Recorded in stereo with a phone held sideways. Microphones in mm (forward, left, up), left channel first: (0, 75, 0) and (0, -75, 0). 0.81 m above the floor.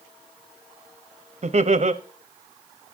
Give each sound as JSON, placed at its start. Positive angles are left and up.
{"t": 1.4, "sound": "laughter", "side_deg": -50, "distance_m": 0.9}